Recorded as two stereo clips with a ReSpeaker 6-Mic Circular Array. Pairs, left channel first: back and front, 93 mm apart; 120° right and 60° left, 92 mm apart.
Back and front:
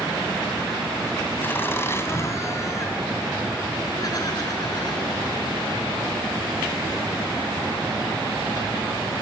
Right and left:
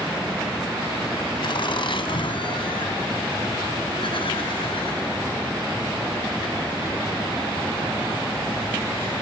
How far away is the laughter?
About 2.5 m.